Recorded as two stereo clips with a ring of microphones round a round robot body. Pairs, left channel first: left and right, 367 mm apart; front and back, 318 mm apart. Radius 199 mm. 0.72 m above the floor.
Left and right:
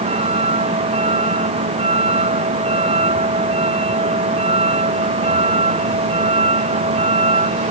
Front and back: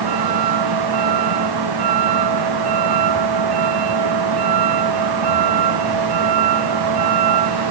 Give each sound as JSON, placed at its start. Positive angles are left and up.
{"t": 0.0, "sound": "a vehicle", "azimuth_deg": -165}